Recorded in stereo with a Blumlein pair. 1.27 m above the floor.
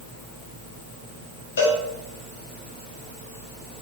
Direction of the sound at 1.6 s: 65° left.